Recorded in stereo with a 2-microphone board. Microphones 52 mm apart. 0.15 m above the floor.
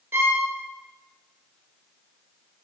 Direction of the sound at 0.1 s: 55° right (ahead or behind).